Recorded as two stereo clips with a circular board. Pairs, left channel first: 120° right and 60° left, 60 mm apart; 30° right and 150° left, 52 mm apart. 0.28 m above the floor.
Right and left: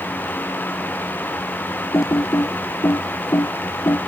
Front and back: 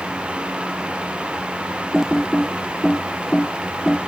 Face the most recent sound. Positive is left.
turn(degrees=-125)